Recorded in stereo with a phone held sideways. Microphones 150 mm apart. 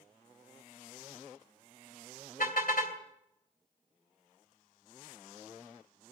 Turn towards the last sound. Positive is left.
turn(degrees=70)  # may be behind; listen again after turning